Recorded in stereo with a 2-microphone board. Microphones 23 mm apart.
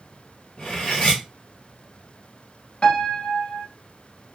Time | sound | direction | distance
0.6 | cutlery clinking | 55° left (ahead or behind) | 1.9 m
2.8 | a piano | 50° left (ahead or behind) | 0.6 m